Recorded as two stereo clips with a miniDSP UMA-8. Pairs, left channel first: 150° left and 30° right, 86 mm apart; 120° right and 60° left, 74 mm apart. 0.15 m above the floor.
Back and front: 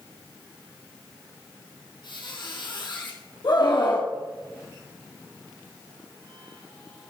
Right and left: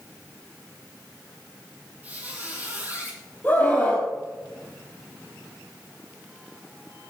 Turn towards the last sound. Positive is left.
turn(degrees=175)